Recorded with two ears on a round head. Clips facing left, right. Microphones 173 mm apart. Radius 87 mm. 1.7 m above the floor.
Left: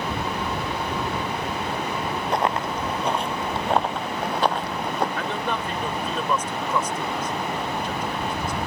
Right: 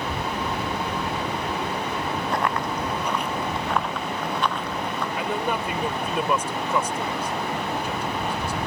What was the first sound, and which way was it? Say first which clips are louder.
Running footsteps: left 3 dB; 20° left (ahead or behind).